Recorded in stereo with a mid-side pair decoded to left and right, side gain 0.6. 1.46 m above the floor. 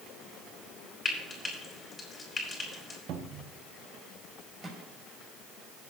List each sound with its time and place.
1.1 s frying: 20° left, 4.5 m
3.1 s a cupboard door: 60° right, 1.3 m
4.6 s a microwave: 25° right, 6 m